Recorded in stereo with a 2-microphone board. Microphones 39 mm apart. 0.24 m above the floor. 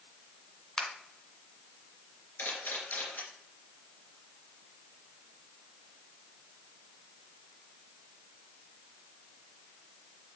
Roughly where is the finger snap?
Left.